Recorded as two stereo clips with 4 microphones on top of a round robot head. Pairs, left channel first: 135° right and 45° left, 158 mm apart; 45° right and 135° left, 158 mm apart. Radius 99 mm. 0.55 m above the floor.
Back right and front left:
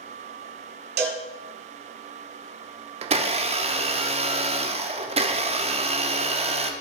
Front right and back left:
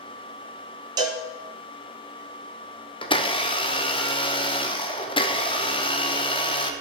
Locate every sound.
1.0 s a cowbell: 70° left, 1.7 m
3.0 s a blender: 5° left, 1.1 m